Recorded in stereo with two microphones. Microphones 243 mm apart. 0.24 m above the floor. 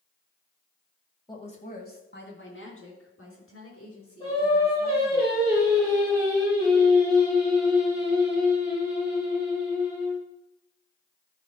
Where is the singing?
25° left (ahead or behind), 5 m.